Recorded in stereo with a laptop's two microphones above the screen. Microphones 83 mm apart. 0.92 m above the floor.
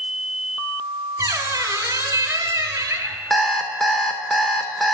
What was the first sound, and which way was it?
A squeak, 35° right (ahead or behind).